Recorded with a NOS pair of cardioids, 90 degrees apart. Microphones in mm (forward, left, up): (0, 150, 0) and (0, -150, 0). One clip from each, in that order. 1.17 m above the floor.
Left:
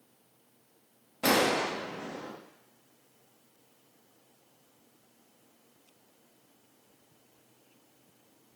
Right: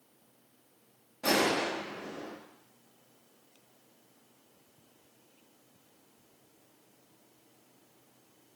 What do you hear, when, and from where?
1.2 s a gunshot: 55° left, 1.4 m